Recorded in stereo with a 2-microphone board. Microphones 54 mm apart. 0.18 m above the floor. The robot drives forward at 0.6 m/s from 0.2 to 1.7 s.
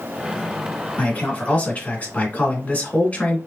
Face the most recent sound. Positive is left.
turn(degrees=30)  # may be behind; listen again after turning